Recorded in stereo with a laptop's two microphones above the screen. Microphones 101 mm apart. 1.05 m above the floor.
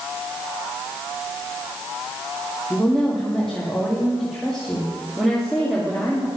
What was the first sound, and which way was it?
A woman speaking, 5° left (ahead or behind).